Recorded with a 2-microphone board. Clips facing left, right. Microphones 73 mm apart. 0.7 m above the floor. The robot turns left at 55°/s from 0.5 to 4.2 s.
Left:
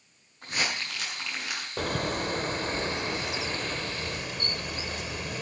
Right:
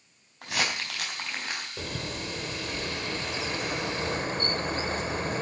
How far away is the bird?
About 0.6 m.